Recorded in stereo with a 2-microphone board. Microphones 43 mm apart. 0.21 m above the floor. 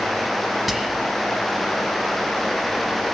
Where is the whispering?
5° right (ahead or behind), 1.6 m.